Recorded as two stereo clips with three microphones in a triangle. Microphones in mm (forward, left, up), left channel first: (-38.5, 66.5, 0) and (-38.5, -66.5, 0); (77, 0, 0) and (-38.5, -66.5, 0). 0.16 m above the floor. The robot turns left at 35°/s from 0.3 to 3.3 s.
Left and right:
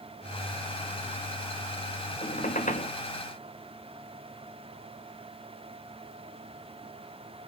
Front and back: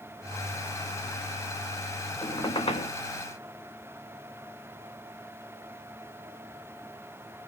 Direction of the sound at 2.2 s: 95° left.